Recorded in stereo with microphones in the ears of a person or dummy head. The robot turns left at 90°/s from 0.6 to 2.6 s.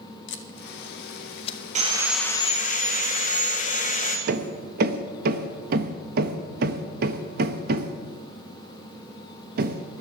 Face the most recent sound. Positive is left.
turn(degrees=-50)  # may be behind; listen again after turning